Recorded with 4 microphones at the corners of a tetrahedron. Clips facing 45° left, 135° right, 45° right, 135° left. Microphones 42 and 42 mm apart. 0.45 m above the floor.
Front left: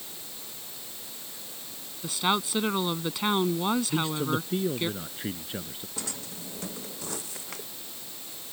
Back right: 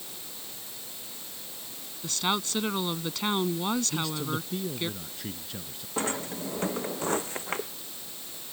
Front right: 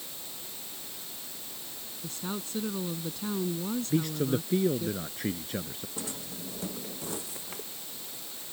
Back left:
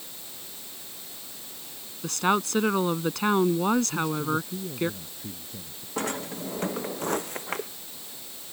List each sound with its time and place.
2.0 s a woman speaking: 125° left
3.9 s a man speaking: 15° right
6.0 s a drawer: 175° left